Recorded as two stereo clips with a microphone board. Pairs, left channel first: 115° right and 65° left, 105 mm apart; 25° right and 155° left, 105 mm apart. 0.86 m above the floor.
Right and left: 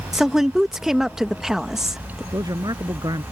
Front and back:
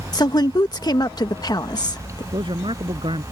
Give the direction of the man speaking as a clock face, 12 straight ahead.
8 o'clock.